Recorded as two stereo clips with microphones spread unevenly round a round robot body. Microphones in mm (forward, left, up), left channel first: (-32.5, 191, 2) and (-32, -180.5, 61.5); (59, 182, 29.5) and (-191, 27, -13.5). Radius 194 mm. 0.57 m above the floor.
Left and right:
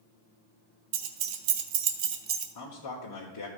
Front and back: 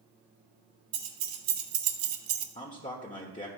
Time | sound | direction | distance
0.9 | keys jangling | 100° right | 1.2 m
2.5 | a man speaking | 100° left | 1.4 m